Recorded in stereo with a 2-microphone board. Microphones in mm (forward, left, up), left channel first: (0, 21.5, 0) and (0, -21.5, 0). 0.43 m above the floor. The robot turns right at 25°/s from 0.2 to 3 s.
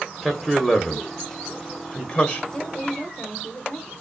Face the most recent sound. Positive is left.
turn(degrees=20)  # may be behind; listen again after turning